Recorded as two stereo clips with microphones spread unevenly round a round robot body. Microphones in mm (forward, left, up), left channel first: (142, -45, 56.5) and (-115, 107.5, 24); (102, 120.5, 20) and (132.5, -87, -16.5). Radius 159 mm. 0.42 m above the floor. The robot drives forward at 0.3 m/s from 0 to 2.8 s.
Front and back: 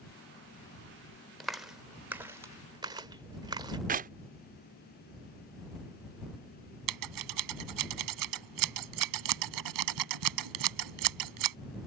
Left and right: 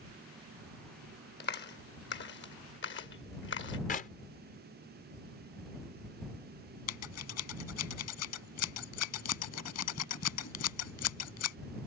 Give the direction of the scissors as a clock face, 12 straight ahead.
7 o'clock.